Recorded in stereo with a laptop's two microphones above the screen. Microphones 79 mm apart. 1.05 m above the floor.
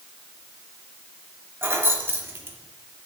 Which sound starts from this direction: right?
Keys jangling, at 1.6 s.